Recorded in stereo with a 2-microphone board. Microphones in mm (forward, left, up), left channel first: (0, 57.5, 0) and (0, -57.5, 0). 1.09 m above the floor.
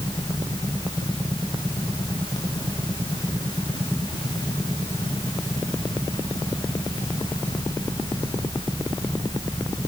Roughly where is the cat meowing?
I don't hear a cat meowing.